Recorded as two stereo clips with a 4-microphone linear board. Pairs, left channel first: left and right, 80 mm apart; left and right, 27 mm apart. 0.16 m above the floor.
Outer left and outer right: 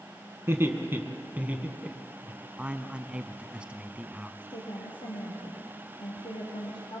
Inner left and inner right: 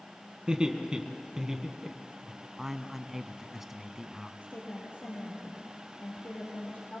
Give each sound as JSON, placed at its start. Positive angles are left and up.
{"t": 0.5, "sound": "laughter", "side_deg": -30, "distance_m": 1.9}
{"t": 2.6, "sound": "a man speaking", "side_deg": -15, "distance_m": 1.1}
{"t": 4.4, "sound": "a woman speaking", "side_deg": 70, "distance_m": 4.0}